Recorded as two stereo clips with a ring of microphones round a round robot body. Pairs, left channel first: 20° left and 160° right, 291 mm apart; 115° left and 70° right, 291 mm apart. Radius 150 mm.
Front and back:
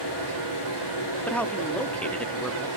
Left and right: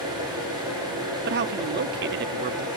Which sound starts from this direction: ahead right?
A man speaking, at 1.3 s.